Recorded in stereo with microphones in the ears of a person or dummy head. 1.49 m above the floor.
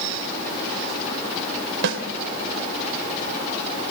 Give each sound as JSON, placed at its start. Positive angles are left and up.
{"t": 1.8, "sound": "a snare drum", "side_deg": -65, "distance_m": 3.0}